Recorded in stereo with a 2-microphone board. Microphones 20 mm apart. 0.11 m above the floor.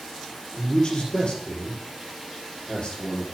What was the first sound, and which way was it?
A man speaking, 45° left (ahead or behind).